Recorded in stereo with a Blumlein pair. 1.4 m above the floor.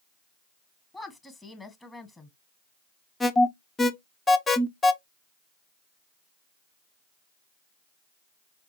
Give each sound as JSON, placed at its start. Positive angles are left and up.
{"t": 0.9, "sound": "a woman speaking", "azimuth_deg": 5, "distance_m": 1.3}
{"t": 3.2, "sound": "an alarm", "azimuth_deg": 15, "distance_m": 0.9}